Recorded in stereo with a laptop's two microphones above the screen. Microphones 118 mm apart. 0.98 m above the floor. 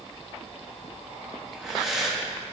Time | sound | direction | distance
1.5 | breathing | centre (ahead or behind) | 1.7 m